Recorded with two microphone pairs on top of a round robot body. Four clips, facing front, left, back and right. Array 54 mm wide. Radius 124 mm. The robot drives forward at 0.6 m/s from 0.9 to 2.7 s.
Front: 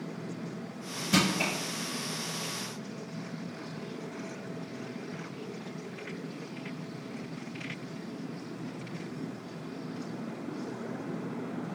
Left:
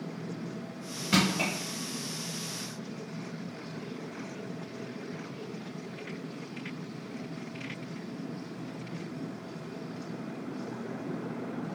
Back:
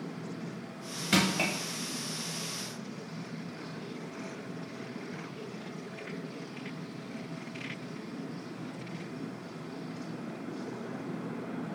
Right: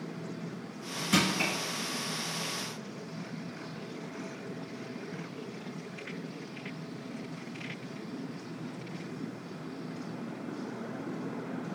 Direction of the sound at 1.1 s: 155° left.